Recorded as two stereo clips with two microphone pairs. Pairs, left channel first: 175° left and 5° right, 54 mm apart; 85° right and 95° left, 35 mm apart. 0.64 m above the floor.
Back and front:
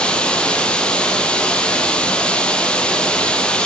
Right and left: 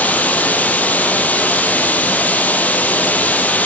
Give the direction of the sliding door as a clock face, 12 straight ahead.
I don't hear a sliding door.